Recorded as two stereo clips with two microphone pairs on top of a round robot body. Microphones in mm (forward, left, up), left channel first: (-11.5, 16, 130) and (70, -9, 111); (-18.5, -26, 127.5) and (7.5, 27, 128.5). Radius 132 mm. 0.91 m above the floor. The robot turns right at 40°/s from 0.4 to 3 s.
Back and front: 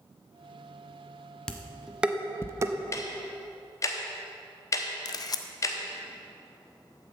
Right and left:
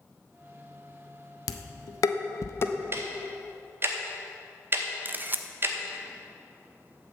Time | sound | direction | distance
1.5 | dishes clattering | 115° right | 0.6 m
2.9 | ticking | 110° left | 0.8 m
5.0 | a camera shutter | 120° left | 0.5 m